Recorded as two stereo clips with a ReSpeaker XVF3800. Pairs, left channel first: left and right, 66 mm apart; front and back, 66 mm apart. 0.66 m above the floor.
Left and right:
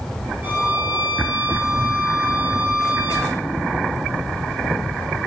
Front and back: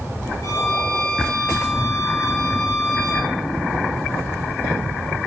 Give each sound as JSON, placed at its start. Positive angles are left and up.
{"t": 0.4, "sound": "a violin", "azimuth_deg": -25, "distance_m": 5.5}